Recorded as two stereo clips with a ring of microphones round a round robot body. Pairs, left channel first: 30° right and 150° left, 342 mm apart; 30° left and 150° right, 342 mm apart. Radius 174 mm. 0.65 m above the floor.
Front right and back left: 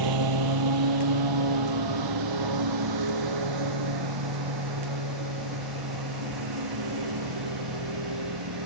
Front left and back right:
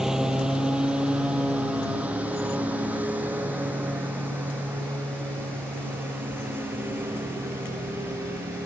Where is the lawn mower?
120° left; by 8.7 s 125° left.